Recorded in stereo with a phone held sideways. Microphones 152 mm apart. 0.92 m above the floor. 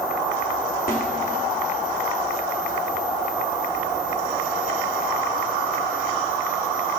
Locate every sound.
0.9 s a snare drum: 75° left (ahead or behind), 2.5 m